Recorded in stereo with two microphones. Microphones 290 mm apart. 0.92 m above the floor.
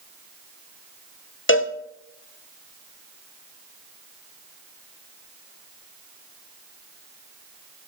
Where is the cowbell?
45° left (ahead or behind), 1.1 m.